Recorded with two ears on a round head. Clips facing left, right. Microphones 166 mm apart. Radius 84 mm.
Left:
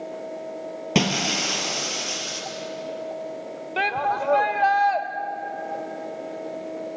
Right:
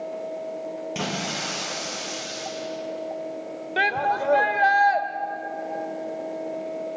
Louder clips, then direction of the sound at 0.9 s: Left 6 dB; 80° left.